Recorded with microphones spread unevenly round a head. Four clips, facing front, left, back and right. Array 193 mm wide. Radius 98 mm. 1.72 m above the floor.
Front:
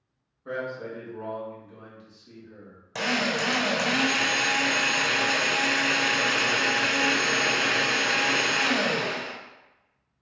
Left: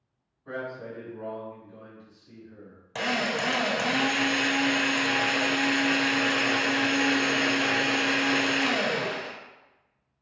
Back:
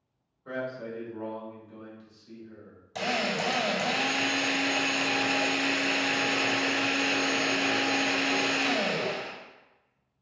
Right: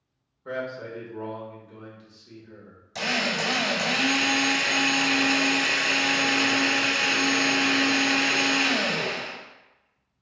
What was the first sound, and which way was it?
A man speaking, 70° right.